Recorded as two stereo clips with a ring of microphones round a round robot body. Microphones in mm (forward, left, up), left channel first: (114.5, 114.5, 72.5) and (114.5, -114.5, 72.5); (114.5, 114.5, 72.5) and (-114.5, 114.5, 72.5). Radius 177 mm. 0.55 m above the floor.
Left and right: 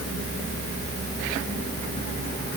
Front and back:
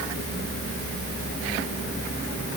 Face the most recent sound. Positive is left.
No sound to turn to.